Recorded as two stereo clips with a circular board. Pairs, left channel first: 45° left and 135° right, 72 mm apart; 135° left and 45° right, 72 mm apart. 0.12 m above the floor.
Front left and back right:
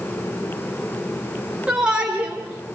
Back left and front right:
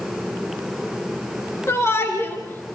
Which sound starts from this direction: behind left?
A shout, at 1.7 s.